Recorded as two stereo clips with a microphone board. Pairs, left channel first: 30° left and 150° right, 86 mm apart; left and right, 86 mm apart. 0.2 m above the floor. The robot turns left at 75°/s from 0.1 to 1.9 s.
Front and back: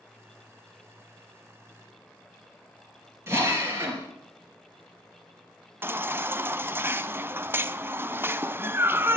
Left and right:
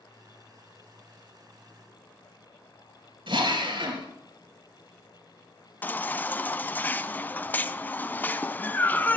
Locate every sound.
3.3 s a drill: 95° right, 4 m
5.8 s a baby crying: 150° left, 0.6 m